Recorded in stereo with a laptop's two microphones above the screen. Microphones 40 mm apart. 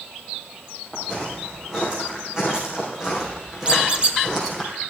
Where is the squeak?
30° right (ahead or behind), 0.9 m.